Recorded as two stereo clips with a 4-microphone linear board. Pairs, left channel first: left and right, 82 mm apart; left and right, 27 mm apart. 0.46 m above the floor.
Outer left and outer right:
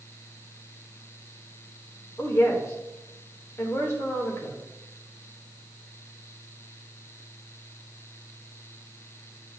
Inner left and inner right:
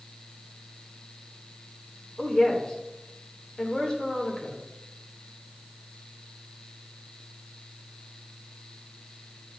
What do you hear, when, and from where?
2.2 s a woman speaking: 30° left (ahead or behind), 1.4 m